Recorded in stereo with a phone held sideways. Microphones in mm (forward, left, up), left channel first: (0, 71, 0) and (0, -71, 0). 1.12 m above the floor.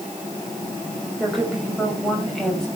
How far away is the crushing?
I don't hear crushing.